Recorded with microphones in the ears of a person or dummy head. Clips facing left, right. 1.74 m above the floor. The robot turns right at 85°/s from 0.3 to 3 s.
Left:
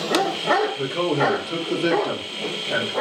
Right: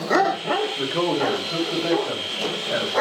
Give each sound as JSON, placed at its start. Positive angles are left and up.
{"t": 0.8, "sound": "a man speaking", "azimuth_deg": -15, "distance_m": 0.8}